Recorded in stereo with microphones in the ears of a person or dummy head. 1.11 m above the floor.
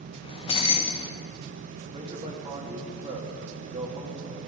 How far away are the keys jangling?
About 0.9 m.